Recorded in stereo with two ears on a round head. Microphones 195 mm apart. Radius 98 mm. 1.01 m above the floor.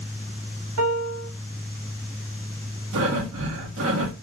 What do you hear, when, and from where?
0.8 s a piano: 80° right, 1.6 m
2.9 s breathing: 70° right (ahead or behind), 1.3 m